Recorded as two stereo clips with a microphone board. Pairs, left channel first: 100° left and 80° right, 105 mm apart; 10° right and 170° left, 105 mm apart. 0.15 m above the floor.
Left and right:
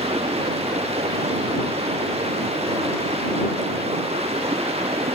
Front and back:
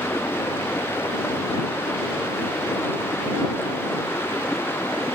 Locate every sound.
0.0 s running water: 80° right